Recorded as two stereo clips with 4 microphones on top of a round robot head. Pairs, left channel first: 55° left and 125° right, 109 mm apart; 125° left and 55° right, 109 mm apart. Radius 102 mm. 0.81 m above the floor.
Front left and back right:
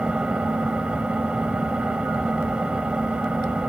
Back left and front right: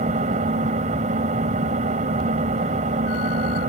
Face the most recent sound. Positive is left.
turn(degrees=-45)